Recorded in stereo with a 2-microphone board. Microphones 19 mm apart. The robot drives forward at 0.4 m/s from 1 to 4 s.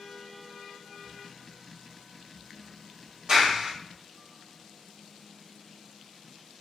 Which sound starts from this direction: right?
A clap, at 3.3 s.